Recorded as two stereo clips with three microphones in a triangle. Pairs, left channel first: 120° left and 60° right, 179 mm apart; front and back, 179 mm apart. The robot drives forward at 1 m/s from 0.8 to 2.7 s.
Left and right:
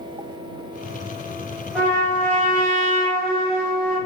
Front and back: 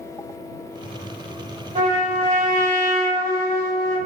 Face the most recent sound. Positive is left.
turn(degrees=-165)